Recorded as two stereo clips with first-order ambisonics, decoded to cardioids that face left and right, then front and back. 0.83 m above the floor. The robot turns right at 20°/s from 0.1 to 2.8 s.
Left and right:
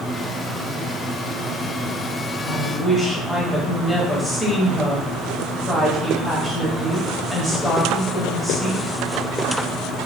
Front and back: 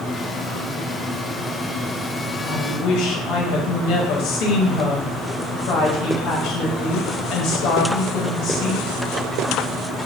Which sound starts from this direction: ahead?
A woman speaking, at 2.4 s.